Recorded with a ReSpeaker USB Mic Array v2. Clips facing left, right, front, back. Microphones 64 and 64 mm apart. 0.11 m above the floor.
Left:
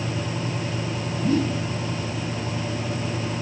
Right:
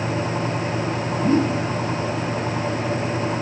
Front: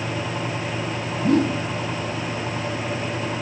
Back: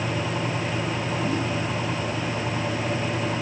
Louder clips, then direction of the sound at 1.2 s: Right 3 dB, front 10 dB; 30° right.